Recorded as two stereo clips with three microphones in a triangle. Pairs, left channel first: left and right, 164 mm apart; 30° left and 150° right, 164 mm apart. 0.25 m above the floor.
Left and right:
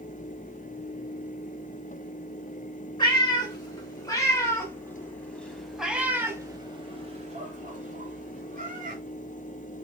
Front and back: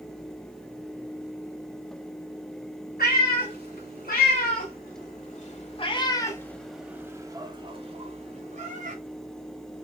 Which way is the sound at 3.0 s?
30° left.